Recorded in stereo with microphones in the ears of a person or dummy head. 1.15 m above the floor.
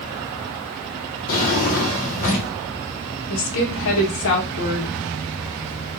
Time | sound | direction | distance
1.3 | a drawer | 50° left (ahead or behind) | 1.0 m
3.3 | a woman speaking | 80° left | 0.9 m